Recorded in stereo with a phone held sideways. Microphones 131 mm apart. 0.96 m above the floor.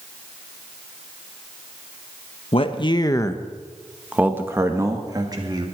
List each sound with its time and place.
2.5 s a man speaking: 50° left (ahead or behind), 1.2 m; by 5.7 s 35° right (ahead or behind), 2 m